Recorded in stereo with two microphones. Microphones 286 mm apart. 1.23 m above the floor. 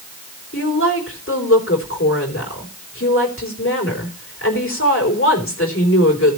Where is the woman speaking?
45° left (ahead or behind), 3.5 m.